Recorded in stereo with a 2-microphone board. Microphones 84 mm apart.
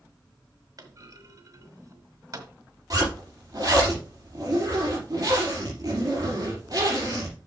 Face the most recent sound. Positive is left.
turn(degrees=-50)  # may be behind; listen again after turning